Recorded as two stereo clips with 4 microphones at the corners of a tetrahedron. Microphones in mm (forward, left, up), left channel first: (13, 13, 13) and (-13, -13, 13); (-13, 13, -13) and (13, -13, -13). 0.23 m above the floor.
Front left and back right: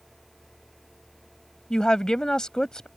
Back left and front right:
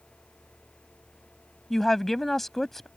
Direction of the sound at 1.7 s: 70° left.